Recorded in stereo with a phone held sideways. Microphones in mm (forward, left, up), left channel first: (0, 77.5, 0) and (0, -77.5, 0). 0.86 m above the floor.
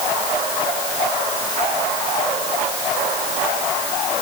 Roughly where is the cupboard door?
I don't hear a cupboard door.